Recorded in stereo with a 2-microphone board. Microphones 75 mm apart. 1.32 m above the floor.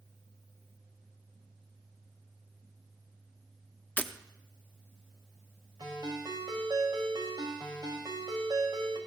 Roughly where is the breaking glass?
Centre.